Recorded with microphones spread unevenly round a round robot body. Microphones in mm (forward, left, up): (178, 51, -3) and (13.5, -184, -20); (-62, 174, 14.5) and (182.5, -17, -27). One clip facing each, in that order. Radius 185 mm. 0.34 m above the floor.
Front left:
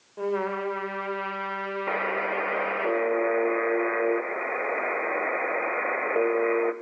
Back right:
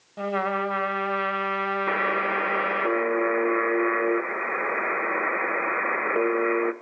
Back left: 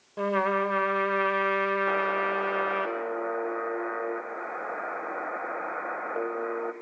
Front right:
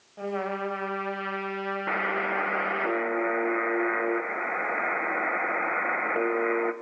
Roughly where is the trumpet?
Behind.